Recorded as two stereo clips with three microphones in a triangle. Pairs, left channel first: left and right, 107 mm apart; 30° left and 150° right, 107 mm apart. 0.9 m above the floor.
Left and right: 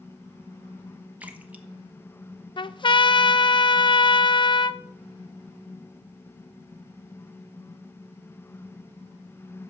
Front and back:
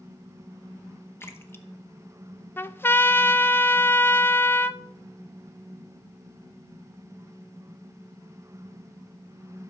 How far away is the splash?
About 1.0 m.